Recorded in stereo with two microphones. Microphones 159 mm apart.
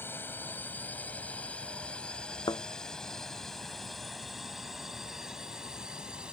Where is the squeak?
No squeak in this recording.